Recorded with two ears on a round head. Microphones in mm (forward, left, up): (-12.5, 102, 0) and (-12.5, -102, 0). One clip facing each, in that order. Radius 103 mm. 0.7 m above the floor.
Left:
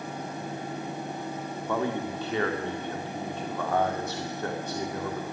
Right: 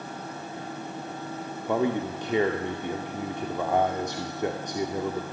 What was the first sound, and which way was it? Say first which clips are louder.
A man speaking: right 4 dB; 15° right (ahead or behind).